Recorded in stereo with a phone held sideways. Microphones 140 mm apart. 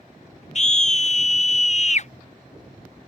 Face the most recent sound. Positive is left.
turn(degrees=50)  # may be behind; listen again after turning